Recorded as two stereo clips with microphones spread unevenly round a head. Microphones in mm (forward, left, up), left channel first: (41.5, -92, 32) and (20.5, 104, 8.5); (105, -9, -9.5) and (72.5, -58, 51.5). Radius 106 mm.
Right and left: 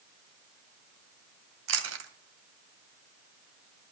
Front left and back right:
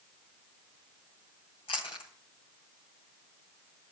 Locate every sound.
1.7 s chewing: 125° left, 2.5 m